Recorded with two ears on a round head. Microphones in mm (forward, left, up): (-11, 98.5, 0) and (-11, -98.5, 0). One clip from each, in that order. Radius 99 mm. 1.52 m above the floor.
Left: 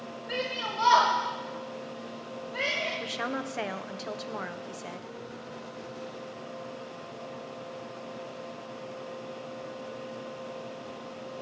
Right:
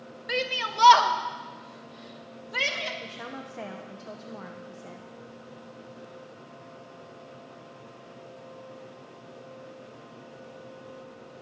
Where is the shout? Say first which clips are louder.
Right 4 dB; 45° right (ahead or behind), 1.4 m; by 2.9 s 85° right, 2.5 m.